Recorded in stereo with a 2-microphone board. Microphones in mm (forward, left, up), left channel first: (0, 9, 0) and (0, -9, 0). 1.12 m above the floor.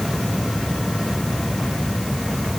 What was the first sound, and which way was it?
Only background noise.